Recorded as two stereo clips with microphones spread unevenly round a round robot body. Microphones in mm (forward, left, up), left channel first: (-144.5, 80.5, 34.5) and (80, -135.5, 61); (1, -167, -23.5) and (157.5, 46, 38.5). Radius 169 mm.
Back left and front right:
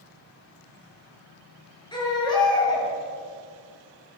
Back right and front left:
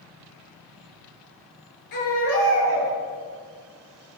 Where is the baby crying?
145° right, 9 m.